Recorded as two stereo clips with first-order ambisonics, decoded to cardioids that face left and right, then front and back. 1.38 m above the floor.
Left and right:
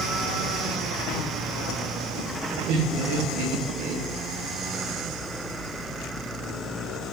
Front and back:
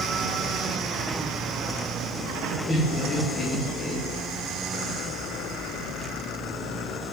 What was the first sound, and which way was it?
Laughter, 75° right.